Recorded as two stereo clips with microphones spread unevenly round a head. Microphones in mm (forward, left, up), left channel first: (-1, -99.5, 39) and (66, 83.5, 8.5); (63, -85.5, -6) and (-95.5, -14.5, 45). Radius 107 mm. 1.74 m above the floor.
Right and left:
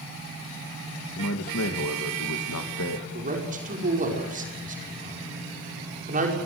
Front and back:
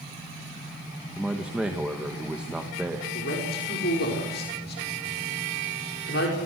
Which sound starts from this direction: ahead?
A man speaking, at 3.1 s.